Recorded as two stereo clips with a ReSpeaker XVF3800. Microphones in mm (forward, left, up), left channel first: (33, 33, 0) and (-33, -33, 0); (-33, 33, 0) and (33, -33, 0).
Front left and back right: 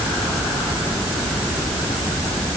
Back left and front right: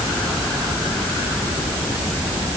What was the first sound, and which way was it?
Only background noise.